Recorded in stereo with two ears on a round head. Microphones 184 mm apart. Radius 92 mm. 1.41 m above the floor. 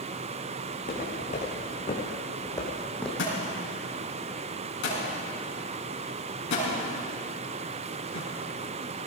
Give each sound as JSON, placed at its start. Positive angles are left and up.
{"t": 0.7, "sound": "footsteps", "side_deg": 45, "distance_m": 5.0}
{"t": 3.2, "sound": "a thud", "side_deg": 60, "distance_m": 6.0}